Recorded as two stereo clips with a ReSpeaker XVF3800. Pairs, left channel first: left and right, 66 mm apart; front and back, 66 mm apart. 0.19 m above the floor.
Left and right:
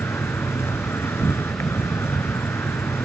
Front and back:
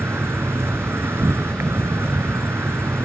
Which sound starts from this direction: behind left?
An insect, at 0.0 s.